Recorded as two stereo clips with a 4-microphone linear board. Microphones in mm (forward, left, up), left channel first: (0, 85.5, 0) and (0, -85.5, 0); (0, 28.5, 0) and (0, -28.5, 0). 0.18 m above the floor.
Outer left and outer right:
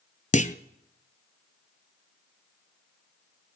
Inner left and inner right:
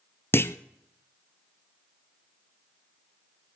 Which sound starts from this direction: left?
A clunk, at 0.3 s.